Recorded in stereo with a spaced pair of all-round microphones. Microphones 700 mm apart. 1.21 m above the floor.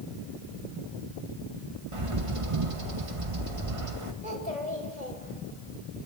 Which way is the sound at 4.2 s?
80° left.